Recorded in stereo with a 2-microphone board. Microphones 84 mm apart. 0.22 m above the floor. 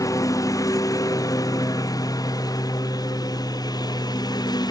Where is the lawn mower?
45° left (ahead or behind); by 4.7 s 55° left (ahead or behind).